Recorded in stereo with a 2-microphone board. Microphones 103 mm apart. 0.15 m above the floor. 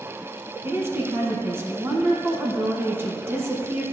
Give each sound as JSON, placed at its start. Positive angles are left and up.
{"t": 0.6, "sound": "a woman speaking", "side_deg": -25, "distance_m": 1.2}